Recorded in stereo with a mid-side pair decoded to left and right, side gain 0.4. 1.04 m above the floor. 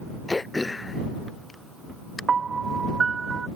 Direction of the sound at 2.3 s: 45° right.